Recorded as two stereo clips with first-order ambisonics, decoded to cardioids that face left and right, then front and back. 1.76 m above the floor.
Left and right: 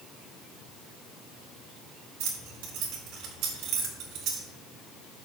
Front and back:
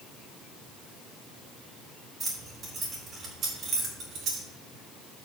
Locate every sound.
2.2 s keys jangling: 100° right, 2.5 m; by 4.5 s 130° right, 2.5 m